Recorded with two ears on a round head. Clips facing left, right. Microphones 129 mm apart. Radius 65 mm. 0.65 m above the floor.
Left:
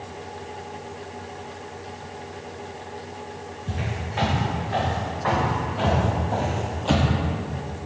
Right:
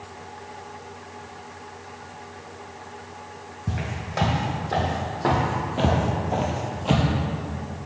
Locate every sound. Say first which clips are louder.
3.7 s footsteps: even; 70° right (ahead or behind), 1.8 m; by 7.1 s 5° left (ahead or behind), 0.7 m